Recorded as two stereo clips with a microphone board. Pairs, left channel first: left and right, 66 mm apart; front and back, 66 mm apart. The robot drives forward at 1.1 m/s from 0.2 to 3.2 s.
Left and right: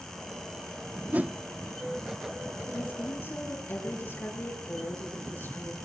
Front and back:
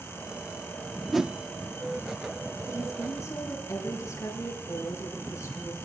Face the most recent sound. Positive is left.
turn(degrees=35)